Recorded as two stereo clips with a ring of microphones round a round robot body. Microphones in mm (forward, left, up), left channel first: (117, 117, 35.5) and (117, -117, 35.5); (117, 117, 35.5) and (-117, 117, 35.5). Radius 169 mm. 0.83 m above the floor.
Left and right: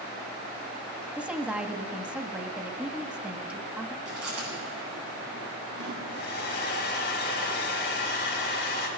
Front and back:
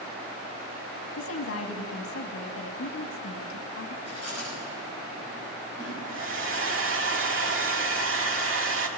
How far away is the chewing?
About 8 m.